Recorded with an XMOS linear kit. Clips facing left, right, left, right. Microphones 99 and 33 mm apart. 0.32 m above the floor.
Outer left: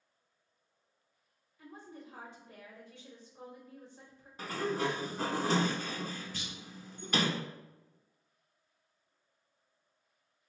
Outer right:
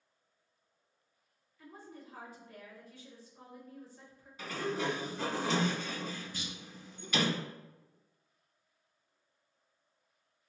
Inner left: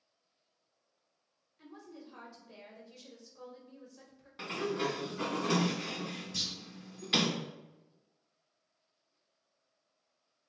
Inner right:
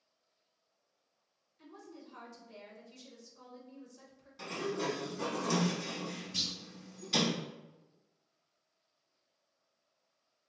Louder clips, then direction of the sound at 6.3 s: Outer right 1 dB, inner right 1 dB; 10° right (ahead or behind).